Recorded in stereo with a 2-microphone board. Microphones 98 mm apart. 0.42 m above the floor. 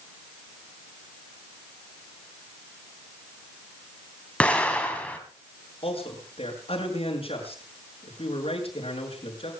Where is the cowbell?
No cowbell in this recording.